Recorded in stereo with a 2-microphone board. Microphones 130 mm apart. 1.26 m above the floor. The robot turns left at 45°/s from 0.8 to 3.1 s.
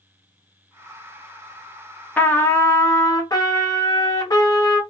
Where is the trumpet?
155° left, 0.6 m; by 4.8 s 115° left, 0.6 m.